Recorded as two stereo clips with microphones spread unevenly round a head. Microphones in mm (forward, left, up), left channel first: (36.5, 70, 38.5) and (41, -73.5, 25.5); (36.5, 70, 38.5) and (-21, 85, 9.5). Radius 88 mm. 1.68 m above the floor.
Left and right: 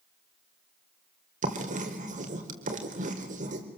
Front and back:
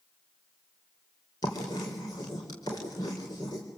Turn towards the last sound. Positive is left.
turn(degrees=-55)